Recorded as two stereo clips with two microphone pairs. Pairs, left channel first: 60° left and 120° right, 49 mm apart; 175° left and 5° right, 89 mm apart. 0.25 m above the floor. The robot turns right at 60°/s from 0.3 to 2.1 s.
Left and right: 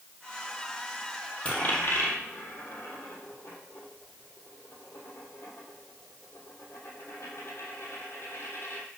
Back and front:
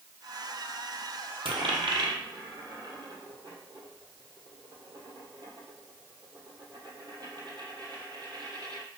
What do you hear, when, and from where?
1.4 s a dropped coin: 5° right, 1.3 m; by 8.8 s 35° left, 1.3 m